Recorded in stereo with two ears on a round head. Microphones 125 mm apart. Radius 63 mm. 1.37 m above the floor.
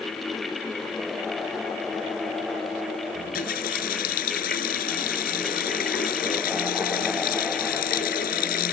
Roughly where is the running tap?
Left.